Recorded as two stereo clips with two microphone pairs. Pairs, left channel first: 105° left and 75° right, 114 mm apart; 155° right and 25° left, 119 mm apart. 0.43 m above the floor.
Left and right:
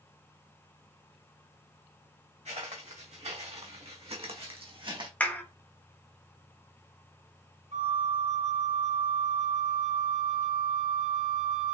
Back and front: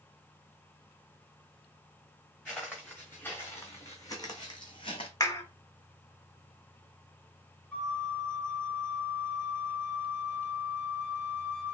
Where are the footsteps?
75° right, 2.5 m; by 5.1 s 115° right, 1.5 m.